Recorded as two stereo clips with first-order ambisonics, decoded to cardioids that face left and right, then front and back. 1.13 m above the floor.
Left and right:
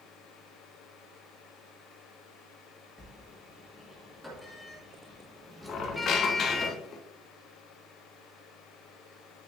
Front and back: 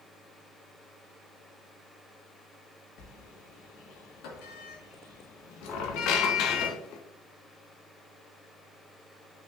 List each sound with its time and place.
3.0 s a sliding door: straight ahead, 1.5 m
5.7 s a squeak: 35° left, 0.9 m